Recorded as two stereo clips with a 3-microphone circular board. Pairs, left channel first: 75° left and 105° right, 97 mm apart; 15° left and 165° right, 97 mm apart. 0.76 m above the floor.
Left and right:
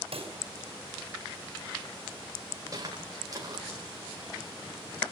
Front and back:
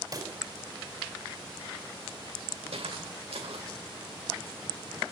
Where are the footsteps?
155° right, 8 m.